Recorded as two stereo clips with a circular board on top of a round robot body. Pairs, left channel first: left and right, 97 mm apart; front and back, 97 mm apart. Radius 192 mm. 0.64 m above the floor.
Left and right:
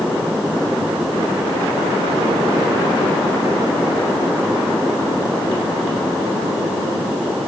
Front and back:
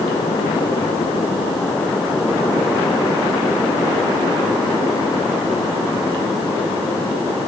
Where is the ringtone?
I don't hear a ringtone.